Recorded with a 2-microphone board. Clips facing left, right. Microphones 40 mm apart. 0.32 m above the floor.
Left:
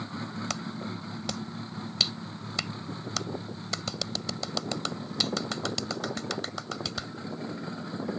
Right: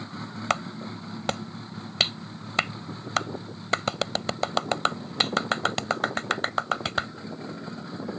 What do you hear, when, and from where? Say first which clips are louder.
0.5 s a clap: right 6 dB; 45° right (ahead or behind)